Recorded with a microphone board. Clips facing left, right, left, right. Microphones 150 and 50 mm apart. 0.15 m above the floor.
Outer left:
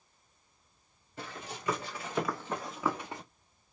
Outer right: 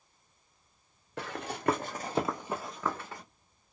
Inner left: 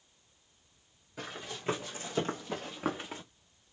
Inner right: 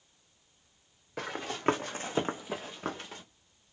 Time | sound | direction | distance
1.2 | running footsteps | 75° right (ahead or behind) | 1.0 m